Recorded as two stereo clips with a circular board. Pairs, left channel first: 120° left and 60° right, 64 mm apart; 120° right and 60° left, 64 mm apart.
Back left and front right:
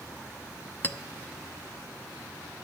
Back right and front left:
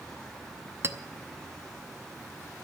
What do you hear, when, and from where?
0.8 s a clink: 75° left, 0.7 m